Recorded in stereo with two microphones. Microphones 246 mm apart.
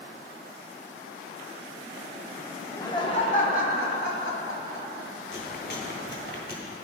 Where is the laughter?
10° left (ahead or behind), 1.2 m; by 5.1 s 60° left (ahead or behind), 2 m.